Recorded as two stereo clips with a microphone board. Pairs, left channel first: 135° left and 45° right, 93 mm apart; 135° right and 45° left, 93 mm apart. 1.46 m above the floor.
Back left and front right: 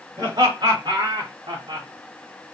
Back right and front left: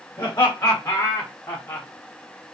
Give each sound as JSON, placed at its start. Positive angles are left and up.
{"t": 0.2, "sound": "laughter", "azimuth_deg": -90, "distance_m": 1.9}